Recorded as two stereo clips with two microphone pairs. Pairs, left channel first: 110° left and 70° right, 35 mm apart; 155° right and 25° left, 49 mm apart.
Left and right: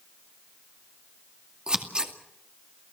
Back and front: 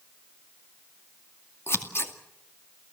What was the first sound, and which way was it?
Scissors, 130° right.